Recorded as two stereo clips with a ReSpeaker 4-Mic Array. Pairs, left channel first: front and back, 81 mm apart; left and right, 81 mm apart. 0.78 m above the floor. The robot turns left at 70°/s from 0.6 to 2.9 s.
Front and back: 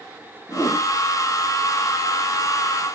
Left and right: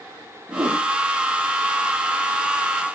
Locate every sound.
0.5 s a whoosh: 45° right, 7 m; by 0.8 s 60° right, 7 m